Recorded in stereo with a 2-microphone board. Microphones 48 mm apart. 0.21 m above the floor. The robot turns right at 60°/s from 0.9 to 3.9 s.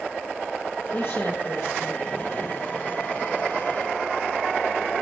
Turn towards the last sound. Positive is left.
turn(degrees=-130)